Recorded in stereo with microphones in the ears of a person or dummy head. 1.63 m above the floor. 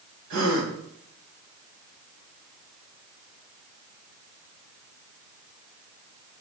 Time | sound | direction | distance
0.3 | a gasp | 80° right | 2.5 m